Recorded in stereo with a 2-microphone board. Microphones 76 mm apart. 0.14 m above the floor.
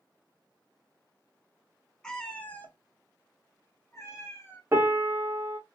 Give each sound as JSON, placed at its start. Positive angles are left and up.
{"t": 2.0, "sound": "a cat meowing", "side_deg": 5, "distance_m": 0.7}
{"t": 4.7, "sound": "a piano", "side_deg": -35, "distance_m": 0.7}